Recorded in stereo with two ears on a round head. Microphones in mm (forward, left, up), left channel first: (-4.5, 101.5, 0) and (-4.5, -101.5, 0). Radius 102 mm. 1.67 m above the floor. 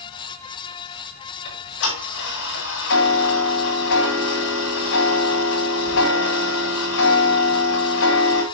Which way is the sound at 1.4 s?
60° left (ahead or behind).